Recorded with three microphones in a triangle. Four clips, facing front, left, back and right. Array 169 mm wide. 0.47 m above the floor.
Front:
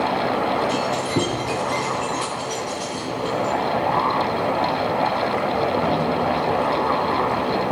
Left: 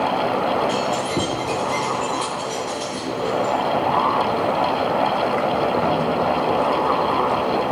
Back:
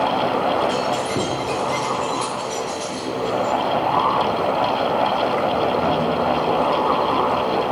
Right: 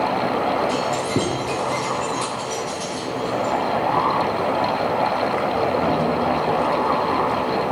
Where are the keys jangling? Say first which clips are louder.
Even, back 1 dB; 90° right, 5.5 m; by 3.5 s 85° right, 7 m.